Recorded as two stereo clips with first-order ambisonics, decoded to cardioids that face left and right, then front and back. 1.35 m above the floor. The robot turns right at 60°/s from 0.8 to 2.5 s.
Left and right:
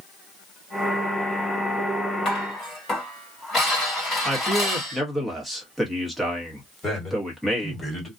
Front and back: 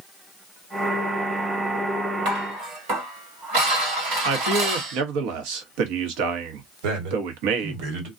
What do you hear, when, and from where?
2.2 s dishes clattering: 150° left, 1.6 m; by 5.0 s 165° left, 1.6 m
4.2 s a man speaking: straight behind, 1.0 m
6.8 s a man speaking: 170° left, 1.5 m